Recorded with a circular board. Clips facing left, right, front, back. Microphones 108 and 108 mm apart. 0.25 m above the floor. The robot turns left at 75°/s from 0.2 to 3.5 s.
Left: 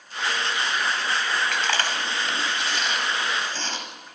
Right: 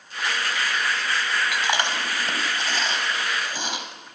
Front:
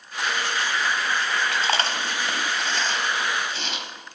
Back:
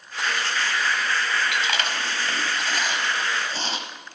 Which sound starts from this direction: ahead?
Chewing, at 1.5 s.